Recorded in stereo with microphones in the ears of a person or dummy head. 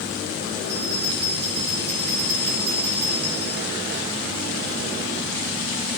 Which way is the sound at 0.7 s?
35° right (ahead or behind).